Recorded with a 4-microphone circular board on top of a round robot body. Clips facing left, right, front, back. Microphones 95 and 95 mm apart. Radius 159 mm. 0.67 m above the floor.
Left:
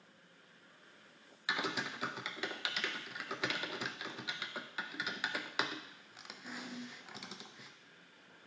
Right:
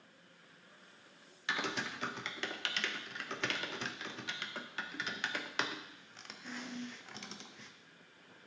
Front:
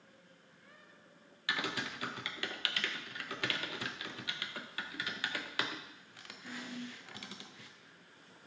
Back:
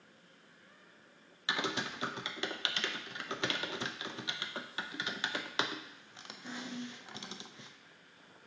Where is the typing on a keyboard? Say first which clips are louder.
Even, back 2 dB; 165° left, 0.6 m.